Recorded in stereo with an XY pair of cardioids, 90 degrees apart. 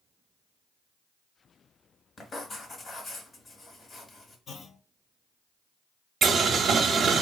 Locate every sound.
2.2 s writing: 40° left, 1.2 m
4.5 s a clunk: 60° left, 0.6 m
6.2 s boiling: 60° right, 0.6 m